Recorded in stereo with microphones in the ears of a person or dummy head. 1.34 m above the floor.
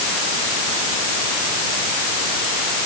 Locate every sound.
Only background noise.